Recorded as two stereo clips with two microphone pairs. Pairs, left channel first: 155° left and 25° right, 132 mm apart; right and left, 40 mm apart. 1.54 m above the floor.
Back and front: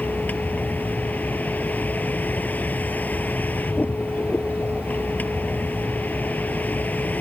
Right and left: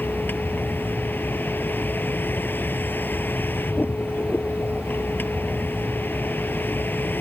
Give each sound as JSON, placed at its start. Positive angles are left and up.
{"t": 0.0, "sound": "a vehicle", "azimuth_deg": -125}